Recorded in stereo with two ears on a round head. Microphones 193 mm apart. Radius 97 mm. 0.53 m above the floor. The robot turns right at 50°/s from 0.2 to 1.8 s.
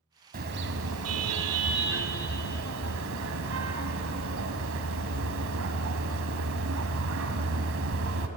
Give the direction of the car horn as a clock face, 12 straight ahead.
5 o'clock.